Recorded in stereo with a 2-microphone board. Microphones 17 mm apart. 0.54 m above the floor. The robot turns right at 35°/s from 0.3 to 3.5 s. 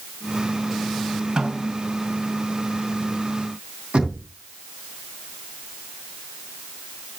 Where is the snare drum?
60° right (ahead or behind), 4.5 m; by 1.9 s 75° right (ahead or behind), 4.5 m.